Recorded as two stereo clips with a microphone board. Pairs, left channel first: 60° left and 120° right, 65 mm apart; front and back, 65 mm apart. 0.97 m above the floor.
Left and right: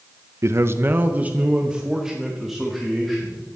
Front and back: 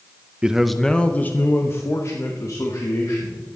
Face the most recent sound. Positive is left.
turn(degrees=-30)